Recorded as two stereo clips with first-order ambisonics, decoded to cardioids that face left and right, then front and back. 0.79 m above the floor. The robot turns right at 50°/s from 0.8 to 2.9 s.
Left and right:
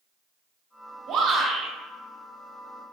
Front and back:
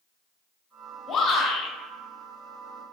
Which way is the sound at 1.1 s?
60° right.